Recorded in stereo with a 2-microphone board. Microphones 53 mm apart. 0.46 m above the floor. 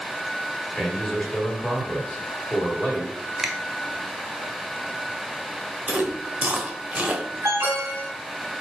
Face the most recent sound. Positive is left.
turn(degrees=-65)  # may be behind; listen again after turning